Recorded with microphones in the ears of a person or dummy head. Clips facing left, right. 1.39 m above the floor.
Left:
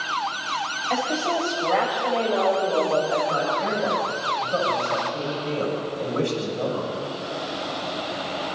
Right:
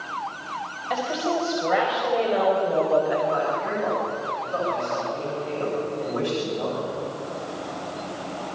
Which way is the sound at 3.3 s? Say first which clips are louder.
Even; 30° left (ahead or behind).